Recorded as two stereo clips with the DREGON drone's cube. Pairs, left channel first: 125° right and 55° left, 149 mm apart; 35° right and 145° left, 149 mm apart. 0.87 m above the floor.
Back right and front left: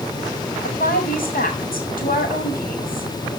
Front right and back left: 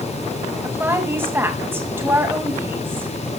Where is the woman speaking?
140° right, 5.5 m.